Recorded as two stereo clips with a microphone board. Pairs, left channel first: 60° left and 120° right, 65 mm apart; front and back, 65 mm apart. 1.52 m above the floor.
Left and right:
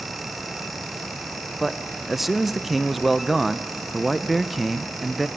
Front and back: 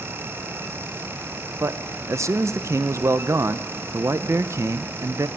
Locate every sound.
1.6 s a man speaking: 150° left, 0.7 m